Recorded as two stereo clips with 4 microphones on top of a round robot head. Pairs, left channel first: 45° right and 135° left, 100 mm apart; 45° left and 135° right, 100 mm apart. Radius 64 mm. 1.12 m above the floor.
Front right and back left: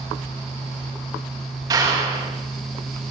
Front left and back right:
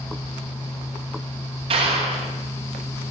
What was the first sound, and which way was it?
A clap, 165° right.